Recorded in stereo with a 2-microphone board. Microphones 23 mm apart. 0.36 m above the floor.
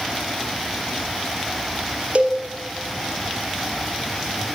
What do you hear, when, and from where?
2.1 s a cowbell: 55° right (ahead or behind), 3 m